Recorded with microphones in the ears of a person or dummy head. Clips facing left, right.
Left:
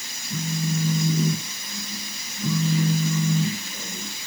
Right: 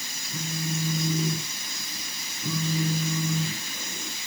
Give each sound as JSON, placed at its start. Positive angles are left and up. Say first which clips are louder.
{"t": 0.3, "sound": "a phone buzzing", "louder": "left 5 dB", "side_deg": 80, "distance_m": 4.5}